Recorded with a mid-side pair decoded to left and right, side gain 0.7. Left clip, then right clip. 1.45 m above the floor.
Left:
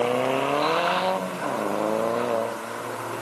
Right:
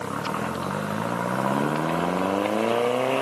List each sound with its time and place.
Only background noise.